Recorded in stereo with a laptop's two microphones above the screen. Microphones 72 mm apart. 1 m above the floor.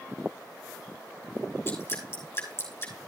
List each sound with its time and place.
1.7 s dripping: 35° left (ahead or behind), 5.5 m